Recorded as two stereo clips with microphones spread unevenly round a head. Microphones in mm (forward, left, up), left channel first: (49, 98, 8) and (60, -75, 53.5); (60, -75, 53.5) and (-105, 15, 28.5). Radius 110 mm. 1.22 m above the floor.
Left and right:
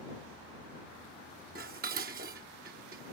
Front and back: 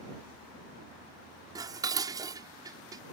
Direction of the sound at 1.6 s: 135° right.